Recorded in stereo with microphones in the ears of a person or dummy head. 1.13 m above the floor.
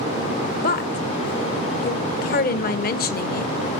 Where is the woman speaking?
45° left (ahead or behind), 0.9 m.